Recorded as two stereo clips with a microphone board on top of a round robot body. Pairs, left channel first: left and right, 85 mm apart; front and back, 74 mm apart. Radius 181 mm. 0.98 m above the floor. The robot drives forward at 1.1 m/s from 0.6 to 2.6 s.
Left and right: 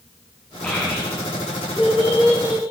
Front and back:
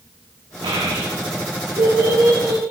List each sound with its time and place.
0.6 s a child speaking: 165° left, 0.7 m; by 2.6 s 175° left, 3 m